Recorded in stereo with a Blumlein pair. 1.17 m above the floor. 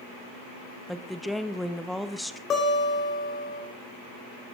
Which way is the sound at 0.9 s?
Straight ahead.